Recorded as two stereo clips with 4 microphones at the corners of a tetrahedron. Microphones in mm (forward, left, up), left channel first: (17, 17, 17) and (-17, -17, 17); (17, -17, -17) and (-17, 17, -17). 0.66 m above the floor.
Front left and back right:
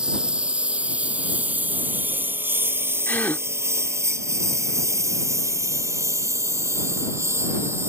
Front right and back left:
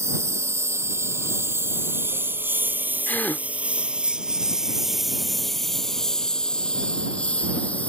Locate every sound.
0.0 s a lawn mower: 155° left; by 7.9 s 105° right
3.1 s a gasp: straight ahead